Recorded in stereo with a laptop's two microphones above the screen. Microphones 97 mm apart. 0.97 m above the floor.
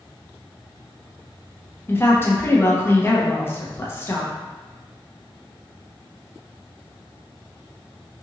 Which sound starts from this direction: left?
A woman speaking, at 1.9 s.